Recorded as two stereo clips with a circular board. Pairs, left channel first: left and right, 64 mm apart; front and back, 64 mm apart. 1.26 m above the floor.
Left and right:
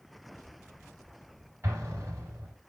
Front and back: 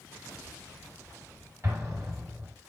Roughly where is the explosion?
Behind right.